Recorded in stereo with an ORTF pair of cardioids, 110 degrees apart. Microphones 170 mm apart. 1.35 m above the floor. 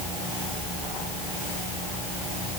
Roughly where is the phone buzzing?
No phone buzzing in this recording.